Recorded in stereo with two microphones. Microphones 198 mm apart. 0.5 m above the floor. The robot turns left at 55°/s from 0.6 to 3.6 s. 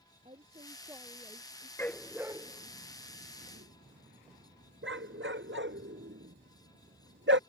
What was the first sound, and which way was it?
A woman speaking, 145° right.